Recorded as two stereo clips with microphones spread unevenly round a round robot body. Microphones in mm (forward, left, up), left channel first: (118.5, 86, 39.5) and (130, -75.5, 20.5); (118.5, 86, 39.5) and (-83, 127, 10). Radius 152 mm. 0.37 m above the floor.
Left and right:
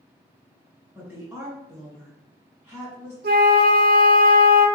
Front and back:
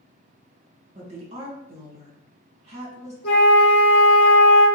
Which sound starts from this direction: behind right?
A woman speaking, at 0.9 s.